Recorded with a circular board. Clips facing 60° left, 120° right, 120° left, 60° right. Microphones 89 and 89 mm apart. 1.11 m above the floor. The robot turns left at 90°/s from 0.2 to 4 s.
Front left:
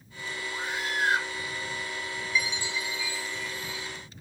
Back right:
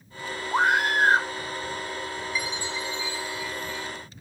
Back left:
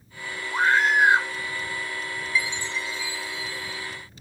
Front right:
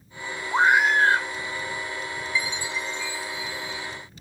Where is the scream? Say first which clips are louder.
Back right 12 dB, front right 2 dB; 115° right; by 1.3 s 175° left.